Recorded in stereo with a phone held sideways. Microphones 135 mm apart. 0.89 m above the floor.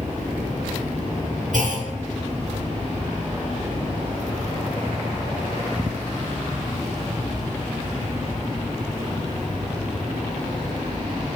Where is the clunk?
65° right (ahead or behind), 1.5 m.